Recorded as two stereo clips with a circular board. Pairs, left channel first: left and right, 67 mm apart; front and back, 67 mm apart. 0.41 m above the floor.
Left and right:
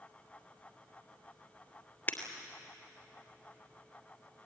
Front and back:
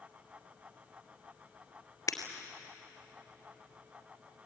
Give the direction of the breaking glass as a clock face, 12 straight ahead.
11 o'clock.